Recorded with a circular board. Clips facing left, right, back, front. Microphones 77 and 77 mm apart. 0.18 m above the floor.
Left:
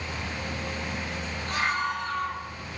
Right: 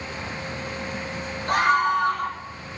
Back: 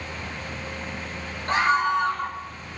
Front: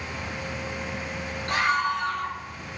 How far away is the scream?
About 9 m.